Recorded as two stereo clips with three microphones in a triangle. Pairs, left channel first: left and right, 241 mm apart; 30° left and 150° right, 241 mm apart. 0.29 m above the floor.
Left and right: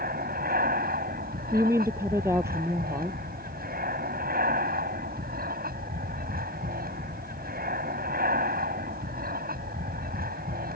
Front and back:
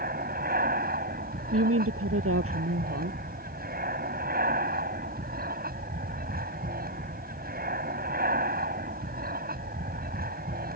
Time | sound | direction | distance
0.0 | an aircraft | 120° right | ?
1.5 | a woman speaking | 170° right | ?